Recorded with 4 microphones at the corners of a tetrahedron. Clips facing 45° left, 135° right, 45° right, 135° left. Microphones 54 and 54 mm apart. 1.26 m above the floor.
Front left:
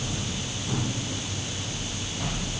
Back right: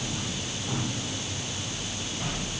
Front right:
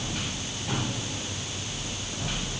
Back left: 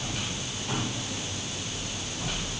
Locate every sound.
Only background noise.